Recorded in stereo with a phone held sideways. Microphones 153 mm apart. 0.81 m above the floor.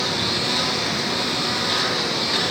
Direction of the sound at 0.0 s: Centre (ahead or behind).